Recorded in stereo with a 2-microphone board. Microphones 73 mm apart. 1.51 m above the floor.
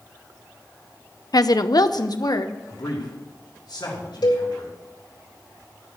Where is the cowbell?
75° left (ahead or behind), 3.5 m.